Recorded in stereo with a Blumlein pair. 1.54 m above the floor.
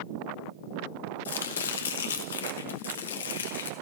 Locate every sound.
1.2 s chopping: 65° left, 1.1 m